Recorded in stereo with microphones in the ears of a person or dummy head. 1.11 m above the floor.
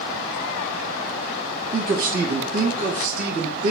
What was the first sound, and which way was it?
A man speaking, 50° right (ahead or behind).